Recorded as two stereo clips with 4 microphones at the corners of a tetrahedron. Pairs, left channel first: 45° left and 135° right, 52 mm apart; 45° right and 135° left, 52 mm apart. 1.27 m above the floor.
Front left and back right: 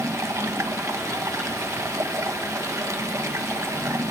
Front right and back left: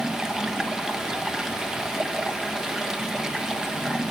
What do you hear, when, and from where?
0.0 s running water: 145° right, 1.4 m